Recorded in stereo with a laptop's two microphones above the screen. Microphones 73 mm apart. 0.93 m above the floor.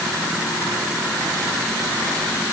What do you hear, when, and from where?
Only background noise.